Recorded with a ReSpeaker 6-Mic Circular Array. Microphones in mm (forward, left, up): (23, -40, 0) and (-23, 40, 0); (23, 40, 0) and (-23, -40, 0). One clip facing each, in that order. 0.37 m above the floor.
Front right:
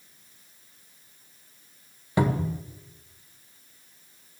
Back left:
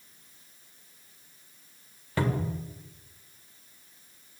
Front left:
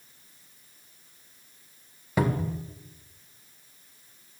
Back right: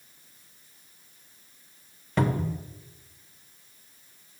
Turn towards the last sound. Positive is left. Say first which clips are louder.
# front right 4 dB, even
turn(degrees=-15)